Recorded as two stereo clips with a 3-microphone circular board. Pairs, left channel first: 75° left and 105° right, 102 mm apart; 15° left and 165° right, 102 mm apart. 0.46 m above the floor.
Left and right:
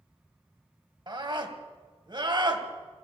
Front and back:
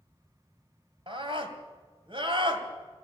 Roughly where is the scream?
Behind right.